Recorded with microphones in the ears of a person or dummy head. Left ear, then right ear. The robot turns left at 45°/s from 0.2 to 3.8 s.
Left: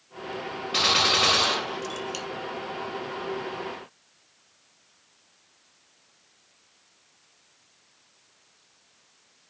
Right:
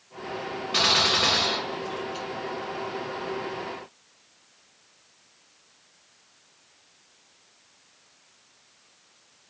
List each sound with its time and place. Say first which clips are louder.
0.7 s a gunshot: even; 175° left, 0.6 m; by 2.2 s 110° left, 0.6 m